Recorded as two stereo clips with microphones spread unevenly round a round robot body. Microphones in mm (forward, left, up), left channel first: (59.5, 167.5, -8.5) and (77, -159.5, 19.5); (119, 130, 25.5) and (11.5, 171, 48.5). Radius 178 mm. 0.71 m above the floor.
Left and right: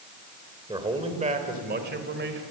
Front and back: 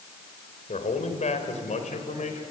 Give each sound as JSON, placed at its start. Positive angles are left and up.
{"t": 0.7, "sound": "a man speaking", "azimuth_deg": -10, "distance_m": 3.5}